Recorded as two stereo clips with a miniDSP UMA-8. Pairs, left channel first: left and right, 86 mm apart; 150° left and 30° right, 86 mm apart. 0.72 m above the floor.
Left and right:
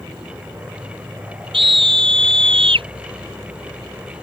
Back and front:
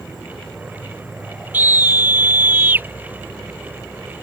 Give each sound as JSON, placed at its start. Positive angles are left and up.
{"t": 0.0, "sound": "an insect", "azimuth_deg": -125}
{"t": 1.5, "sound": "a scream", "azimuth_deg": -100}